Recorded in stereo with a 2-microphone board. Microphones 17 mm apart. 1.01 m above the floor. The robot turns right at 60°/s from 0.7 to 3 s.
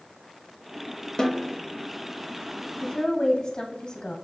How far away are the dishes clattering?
I don't hear dishes clattering.